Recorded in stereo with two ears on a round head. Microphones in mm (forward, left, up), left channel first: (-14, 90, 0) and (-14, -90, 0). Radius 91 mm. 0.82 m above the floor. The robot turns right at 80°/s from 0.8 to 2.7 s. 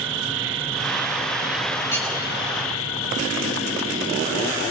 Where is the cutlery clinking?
15° left (ahead or behind), 5 m; by 2.1 s centre (ahead or behind), 5 m.